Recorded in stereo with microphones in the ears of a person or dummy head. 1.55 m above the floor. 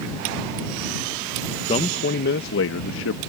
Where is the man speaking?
30° left (ahead or behind); by 3.2 s 80° left.